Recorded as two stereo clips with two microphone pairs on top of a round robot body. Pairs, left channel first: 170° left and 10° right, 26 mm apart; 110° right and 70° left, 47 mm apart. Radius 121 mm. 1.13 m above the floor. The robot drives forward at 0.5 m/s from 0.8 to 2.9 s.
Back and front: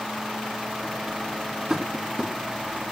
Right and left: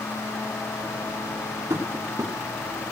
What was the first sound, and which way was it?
Tapping, 65° left.